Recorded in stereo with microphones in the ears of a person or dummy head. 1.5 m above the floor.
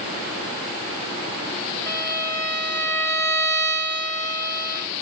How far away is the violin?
About 0.7 m.